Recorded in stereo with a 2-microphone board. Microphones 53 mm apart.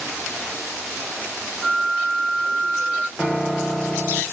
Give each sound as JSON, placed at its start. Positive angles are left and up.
{"t": 1.6, "sound": "a flute", "side_deg": 25, "distance_m": 0.8}
{"t": 3.2, "sound": "a piano", "side_deg": -5, "distance_m": 0.6}